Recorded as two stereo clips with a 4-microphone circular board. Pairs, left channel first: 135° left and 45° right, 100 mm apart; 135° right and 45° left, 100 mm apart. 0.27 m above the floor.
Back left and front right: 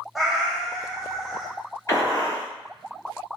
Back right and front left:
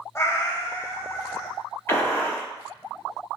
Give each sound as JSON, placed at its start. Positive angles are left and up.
{"t": 0.1, "sound": "a cat meowing", "azimuth_deg": -130, "distance_m": 0.5}
{"t": 1.9, "sound": "a gunshot", "azimuth_deg": 175, "distance_m": 2.0}